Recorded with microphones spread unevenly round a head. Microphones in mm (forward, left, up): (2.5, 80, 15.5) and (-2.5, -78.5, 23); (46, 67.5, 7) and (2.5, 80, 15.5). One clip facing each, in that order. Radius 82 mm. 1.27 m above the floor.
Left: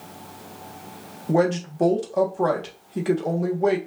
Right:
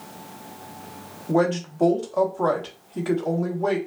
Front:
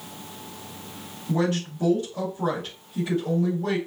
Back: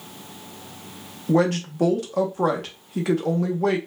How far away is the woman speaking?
About 1.1 m.